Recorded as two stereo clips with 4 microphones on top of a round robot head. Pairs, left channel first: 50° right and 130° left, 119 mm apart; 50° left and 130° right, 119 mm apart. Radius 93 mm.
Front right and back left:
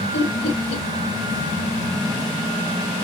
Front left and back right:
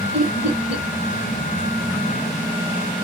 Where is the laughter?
55° right, 1.2 m.